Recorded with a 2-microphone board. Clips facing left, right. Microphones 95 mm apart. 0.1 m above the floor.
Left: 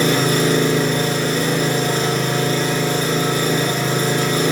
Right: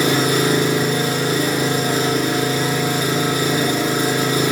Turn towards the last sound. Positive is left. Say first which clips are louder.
# even
turn(degrees=-10)  # may be behind; listen again after turning